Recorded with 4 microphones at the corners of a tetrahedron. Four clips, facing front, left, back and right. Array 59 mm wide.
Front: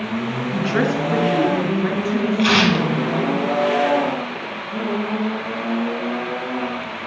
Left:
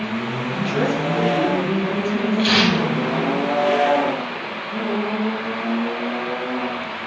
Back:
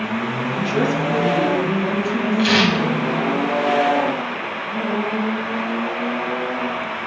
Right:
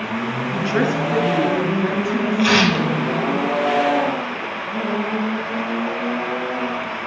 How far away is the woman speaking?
About 2.5 m.